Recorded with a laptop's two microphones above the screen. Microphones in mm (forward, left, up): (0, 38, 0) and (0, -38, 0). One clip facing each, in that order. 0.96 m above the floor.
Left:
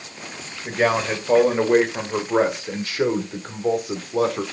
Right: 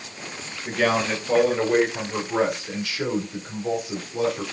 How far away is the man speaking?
About 4 m.